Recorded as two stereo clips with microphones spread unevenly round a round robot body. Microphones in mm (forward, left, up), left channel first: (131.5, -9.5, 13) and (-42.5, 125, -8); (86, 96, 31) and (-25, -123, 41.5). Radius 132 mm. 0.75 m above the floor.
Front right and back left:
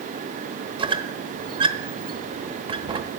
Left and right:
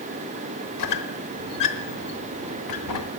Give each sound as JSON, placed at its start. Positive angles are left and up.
{"t": 0.8, "sound": "a squeak", "azimuth_deg": 75, "distance_m": 1.0}